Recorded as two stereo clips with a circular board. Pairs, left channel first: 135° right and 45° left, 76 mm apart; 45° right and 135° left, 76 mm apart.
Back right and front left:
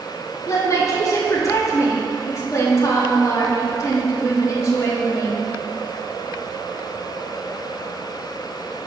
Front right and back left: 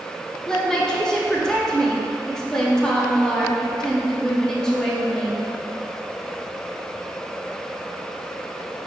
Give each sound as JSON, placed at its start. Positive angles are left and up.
{"t": 0.5, "sound": "a woman speaking", "azimuth_deg": -125, "distance_m": 1.4}